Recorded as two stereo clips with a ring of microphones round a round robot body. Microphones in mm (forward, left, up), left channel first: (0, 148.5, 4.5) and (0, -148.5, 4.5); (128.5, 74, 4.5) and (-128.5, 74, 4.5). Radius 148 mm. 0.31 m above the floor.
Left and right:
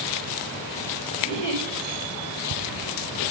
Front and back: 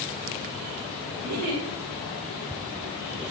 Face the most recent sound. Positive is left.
turn(degrees=165)